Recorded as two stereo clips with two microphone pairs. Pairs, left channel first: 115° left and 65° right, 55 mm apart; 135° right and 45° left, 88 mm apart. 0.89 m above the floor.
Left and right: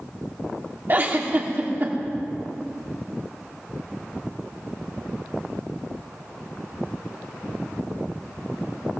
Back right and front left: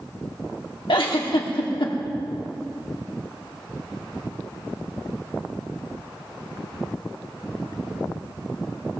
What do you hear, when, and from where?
0.9 s a giggle: 120° right, 1.6 m